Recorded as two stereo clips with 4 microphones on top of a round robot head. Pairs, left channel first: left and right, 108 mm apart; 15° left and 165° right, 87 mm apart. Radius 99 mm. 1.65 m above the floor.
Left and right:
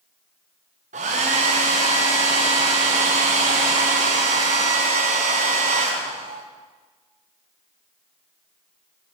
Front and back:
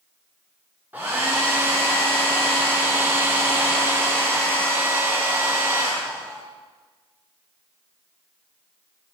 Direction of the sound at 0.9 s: 90° right.